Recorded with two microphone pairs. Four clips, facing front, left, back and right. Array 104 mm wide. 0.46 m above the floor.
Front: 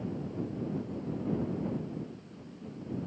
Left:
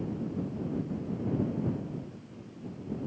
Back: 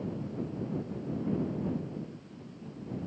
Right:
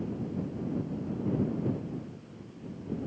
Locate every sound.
Only background noise.